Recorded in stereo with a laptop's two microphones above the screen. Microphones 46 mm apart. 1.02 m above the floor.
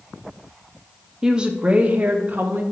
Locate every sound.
1.2 s a woman speaking: 15° right (ahead or behind), 1.0 m; by 2.6 s 50° right (ahead or behind), 1.4 m